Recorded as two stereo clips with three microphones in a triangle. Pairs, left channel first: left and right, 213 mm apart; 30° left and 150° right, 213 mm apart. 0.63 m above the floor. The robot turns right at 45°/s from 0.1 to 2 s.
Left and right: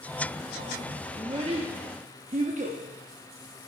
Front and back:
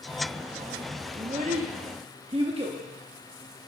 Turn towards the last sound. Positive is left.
turn(degrees=-105)